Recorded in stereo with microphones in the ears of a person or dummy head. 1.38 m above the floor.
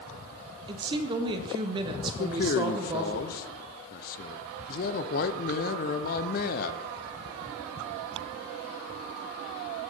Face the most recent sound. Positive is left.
turn(degrees=50)  # may be behind; listen again after turning